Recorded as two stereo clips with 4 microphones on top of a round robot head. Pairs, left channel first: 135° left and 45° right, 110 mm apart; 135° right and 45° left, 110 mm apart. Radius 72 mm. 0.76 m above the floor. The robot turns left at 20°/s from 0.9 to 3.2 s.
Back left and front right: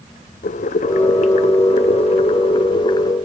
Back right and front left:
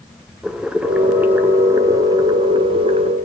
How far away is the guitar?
I don't hear a guitar.